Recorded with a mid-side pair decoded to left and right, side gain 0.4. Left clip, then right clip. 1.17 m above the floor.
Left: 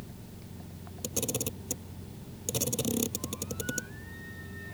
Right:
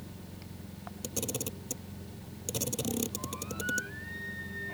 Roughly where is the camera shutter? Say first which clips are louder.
Left 3 dB; ahead.